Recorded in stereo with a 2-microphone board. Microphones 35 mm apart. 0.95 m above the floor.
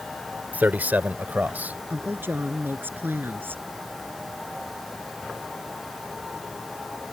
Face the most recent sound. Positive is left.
turn(degrees=-85)